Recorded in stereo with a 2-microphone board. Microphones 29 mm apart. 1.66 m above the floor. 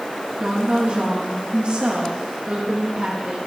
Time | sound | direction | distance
0.4 | a woman speaking | 40° right (ahead or behind) | 2.5 m